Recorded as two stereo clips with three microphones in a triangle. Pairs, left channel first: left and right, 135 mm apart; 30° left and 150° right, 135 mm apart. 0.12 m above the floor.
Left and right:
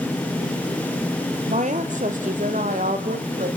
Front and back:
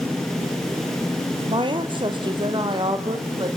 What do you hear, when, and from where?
1.5 s a woman speaking: 100° right, 2.5 m; by 3.5 s 95° right, 4 m